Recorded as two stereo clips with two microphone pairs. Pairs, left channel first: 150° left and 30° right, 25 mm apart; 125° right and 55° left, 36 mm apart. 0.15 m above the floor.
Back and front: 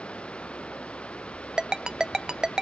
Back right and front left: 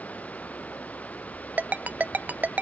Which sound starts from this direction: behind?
Running water, at 0.0 s.